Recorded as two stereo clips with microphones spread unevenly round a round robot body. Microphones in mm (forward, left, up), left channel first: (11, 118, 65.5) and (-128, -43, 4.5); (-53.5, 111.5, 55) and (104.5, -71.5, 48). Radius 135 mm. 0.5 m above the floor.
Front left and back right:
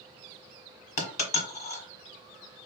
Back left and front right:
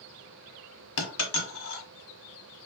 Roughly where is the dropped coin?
Left.